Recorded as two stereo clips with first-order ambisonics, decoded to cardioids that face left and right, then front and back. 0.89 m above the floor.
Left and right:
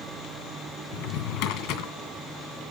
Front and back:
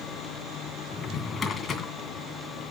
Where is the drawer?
70° left, 2.5 m.